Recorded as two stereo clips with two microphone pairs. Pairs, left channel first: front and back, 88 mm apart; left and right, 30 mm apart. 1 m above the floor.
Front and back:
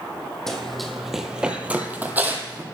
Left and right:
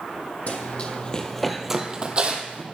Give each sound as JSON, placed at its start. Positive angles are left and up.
{"t": 0.5, "sound": "running footsteps", "azimuth_deg": 85, "distance_m": 1.5}